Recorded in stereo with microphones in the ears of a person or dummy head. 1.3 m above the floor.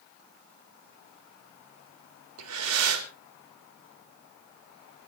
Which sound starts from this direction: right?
Breathing, at 2.4 s.